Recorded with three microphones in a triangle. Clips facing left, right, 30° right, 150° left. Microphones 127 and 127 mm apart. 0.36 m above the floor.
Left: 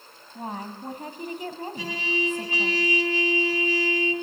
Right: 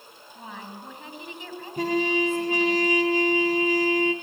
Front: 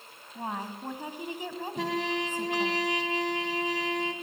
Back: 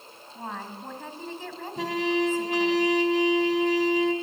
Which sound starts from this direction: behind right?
A trumpet, at 1.8 s.